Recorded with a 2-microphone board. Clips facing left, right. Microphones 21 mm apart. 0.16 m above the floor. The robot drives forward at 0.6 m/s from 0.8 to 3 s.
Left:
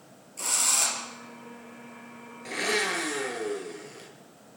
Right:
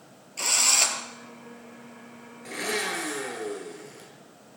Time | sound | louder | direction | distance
0.4 | a drill | right 4 dB | 40° right (ahead or behind) | 2.5 m
2.5 | a blender | left 2 dB | 10° left (ahead or behind) | 2.5 m